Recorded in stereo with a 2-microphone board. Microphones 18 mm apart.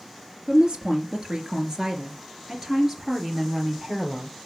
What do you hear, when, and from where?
0.5 s a woman speaking: 55° right (ahead or behind), 2.5 m; by 4.4 s 10° right (ahead or behind), 3 m